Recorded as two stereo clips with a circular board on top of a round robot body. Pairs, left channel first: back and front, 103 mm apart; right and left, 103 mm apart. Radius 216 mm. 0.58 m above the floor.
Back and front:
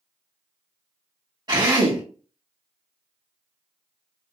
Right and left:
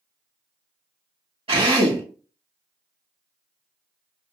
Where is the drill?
55° left, 3 m.